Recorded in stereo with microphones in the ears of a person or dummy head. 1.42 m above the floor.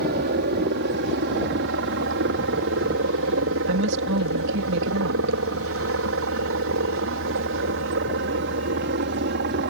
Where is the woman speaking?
65° right (ahead or behind).